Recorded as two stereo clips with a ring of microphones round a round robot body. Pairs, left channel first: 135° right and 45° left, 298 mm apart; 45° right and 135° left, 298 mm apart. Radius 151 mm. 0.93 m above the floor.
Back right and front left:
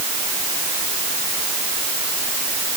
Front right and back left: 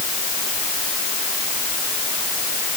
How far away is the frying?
I don't hear frying.